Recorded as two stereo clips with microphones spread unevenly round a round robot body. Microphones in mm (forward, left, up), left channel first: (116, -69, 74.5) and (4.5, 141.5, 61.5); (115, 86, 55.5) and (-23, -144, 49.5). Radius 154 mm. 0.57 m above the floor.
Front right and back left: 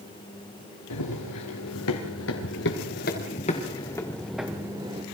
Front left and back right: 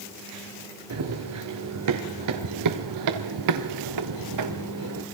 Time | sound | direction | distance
0.9 | running footsteps | 90° right | 5.5 m